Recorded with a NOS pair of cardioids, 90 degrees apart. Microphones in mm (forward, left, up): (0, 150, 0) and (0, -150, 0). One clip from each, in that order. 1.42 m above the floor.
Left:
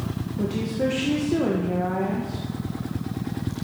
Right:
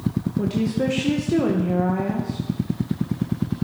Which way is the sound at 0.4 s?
20° right.